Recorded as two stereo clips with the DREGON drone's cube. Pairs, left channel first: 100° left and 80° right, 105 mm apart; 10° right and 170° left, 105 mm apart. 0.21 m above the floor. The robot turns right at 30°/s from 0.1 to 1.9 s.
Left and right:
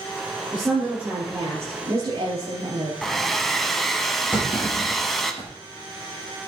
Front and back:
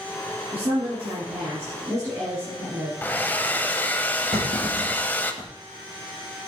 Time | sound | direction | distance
0.5 | a woman speaking | 165° right | 5.5 m
3.0 | a hair dryer | 20° left | 1.0 m
4.3 | a clunk | straight behind | 6 m